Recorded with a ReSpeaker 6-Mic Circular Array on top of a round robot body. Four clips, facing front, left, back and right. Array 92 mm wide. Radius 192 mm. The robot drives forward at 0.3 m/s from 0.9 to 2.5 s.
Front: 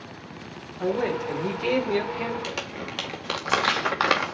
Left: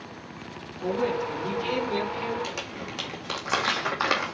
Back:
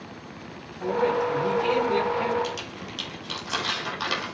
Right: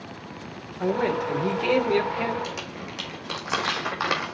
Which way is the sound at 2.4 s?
Straight ahead.